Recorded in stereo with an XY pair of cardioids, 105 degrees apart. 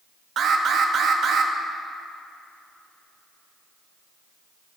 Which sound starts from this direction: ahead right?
An alarm, at 0.4 s.